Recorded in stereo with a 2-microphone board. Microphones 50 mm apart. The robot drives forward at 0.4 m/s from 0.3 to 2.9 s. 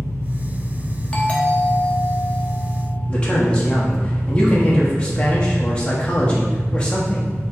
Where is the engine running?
65° left (ahead or behind), 1.6 m; by 7.5 s 40° left (ahead or behind), 2 m.